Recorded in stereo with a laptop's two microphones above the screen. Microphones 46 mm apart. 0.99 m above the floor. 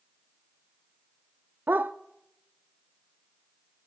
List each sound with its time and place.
1.7 s a dog barking: 45° right (ahead or behind), 0.5 m